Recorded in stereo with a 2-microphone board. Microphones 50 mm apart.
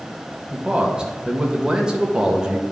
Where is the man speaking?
15° right (ahead or behind), 1.3 m.